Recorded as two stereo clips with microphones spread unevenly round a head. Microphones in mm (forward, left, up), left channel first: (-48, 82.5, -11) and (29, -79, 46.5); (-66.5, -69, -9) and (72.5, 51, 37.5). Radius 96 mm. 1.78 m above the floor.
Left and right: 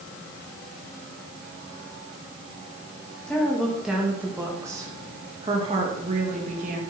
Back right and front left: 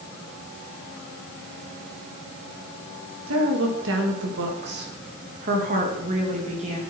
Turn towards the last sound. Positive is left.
turn(degrees=-20)